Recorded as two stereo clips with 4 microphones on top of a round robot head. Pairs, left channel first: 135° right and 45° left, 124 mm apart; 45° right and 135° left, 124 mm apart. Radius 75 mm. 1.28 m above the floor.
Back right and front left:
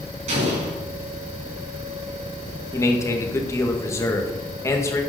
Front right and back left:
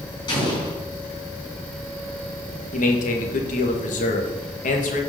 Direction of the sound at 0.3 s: 10° left.